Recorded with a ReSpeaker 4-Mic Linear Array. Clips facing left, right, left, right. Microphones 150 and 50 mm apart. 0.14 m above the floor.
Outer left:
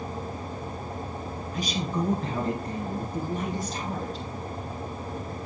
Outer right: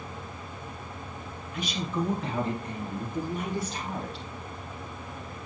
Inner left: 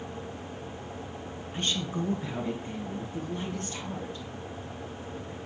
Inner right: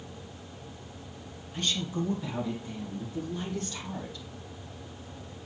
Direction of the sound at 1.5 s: 35° left (ahead or behind).